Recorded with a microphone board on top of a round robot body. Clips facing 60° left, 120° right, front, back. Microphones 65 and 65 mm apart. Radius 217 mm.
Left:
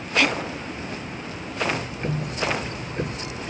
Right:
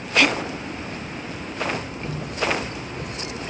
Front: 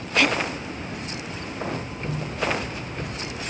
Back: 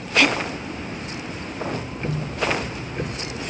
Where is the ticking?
110° left.